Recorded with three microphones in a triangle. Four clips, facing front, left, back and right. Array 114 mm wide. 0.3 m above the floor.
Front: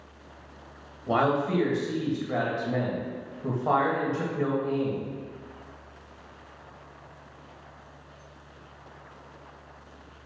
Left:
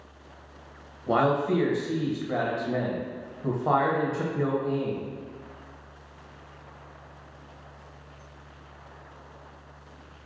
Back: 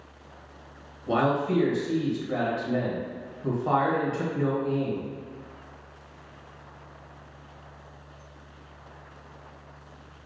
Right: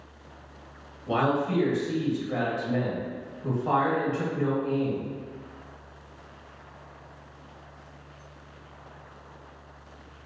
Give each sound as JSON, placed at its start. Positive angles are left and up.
{"t": 1.1, "sound": "a man speaking", "azimuth_deg": 55, "distance_m": 1.2}